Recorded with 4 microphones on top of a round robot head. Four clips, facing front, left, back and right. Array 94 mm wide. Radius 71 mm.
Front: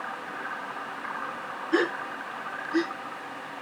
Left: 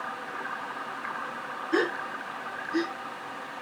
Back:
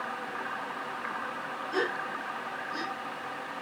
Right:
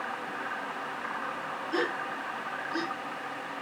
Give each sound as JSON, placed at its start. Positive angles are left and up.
{"t": 1.7, "sound": "a gasp", "azimuth_deg": 40, "distance_m": 2.5}